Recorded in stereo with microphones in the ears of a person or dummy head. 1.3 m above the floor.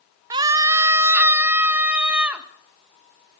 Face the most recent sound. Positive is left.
turn(degrees=-10)  # may be behind; listen again after turning